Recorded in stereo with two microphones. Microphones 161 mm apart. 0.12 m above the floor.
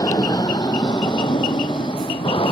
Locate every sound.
0.0 s an aircraft: 25° left (ahead or behind); by 2.5 s 35° left (ahead or behind)